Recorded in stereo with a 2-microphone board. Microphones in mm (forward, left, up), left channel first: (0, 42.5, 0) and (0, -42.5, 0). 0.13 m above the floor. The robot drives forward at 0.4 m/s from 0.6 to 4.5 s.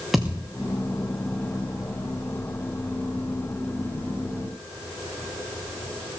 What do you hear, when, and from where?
0.1 s a thud: 5° right (ahead or behind), 3.5 m